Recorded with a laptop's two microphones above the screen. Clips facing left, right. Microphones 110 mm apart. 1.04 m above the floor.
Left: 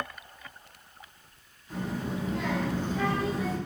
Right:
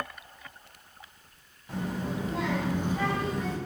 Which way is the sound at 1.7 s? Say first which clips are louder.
Even; 60° right (ahead or behind).